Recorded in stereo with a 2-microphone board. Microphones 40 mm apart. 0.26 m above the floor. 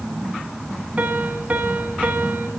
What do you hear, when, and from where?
1.0 s a piano: 40° right (ahead or behind), 1.5 m